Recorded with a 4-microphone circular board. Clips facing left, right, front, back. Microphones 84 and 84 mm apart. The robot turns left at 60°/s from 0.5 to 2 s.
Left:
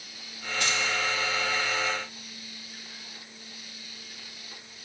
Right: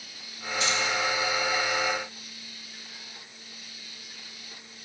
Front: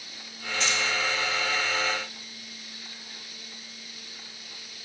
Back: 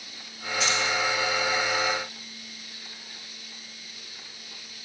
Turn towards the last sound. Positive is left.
turn(degrees=10)